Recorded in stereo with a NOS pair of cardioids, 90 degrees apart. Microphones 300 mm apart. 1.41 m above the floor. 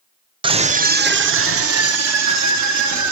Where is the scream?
15° right, 0.8 m; by 3.1 s 70° right, 1.7 m.